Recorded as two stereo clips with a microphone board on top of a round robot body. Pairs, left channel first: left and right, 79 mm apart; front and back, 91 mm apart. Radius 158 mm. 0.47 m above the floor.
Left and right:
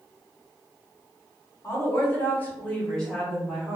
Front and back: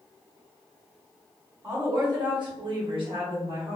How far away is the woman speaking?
About 1.7 m.